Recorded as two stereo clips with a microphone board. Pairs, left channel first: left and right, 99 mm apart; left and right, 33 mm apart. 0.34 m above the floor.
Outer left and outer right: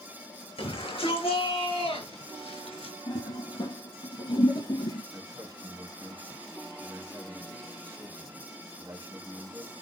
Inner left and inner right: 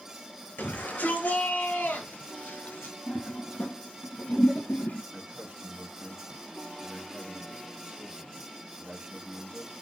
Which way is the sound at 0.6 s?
70° left (ahead or behind).